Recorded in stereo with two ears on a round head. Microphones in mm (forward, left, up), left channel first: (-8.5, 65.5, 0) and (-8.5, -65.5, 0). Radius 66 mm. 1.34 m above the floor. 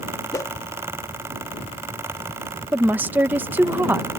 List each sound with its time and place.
0.3 s a whoosh: 25° left (ahead or behind)
2.7 s a woman speaking: 15° right (ahead or behind)